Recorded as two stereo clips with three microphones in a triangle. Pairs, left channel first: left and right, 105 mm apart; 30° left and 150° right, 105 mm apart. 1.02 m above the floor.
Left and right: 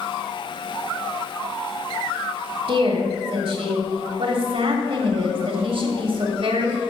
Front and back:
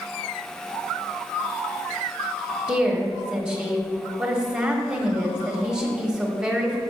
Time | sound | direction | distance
2.7 | a woman speaking | 70° right | 1.3 m